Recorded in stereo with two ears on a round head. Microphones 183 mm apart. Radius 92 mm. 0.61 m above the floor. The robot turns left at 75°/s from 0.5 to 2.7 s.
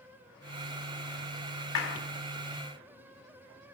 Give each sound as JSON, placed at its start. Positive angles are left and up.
{"t": 1.8, "sound": "a clap", "side_deg": 70, "distance_m": 3.5}